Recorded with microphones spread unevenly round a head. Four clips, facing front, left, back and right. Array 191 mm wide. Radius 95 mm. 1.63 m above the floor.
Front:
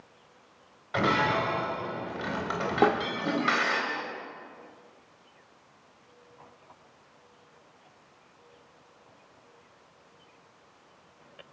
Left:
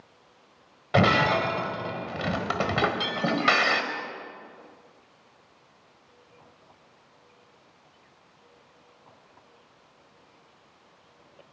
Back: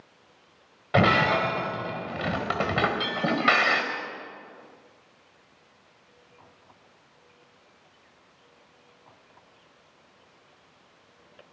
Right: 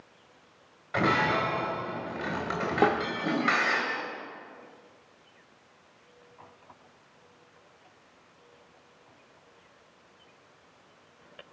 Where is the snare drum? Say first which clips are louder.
Right 6 dB, front 7 dB; 50° right, 2.0 m.